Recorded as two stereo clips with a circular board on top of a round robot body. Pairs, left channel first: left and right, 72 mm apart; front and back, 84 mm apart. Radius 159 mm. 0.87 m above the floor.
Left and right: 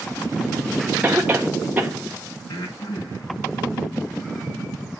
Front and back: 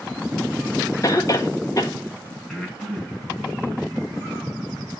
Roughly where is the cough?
Ahead right.